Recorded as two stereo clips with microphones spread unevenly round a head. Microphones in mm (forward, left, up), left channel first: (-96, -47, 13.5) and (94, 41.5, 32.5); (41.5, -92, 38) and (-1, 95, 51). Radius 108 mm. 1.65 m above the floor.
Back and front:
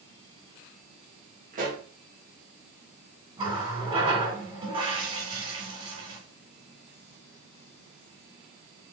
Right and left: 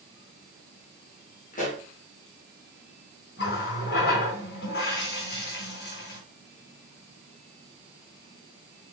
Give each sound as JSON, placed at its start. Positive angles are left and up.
{"t": 1.5, "sound": "a pop", "azimuth_deg": -30, "distance_m": 2.5}
{"t": 3.4, "sound": "a running tap", "azimuth_deg": -40, "distance_m": 3.5}